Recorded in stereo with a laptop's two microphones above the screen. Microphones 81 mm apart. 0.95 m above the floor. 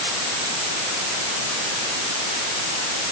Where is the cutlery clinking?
I don't hear cutlery clinking.